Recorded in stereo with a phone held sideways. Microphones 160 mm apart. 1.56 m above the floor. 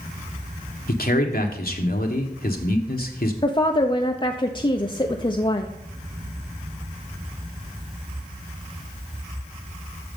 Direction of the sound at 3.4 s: 30° left (ahead or behind).